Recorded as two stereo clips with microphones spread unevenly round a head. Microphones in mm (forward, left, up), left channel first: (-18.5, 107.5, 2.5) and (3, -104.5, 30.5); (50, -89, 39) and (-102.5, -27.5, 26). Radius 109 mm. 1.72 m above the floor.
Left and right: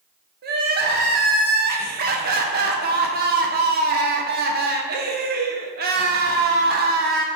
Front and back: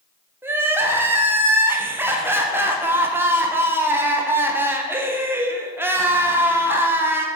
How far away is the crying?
About 0.9 m.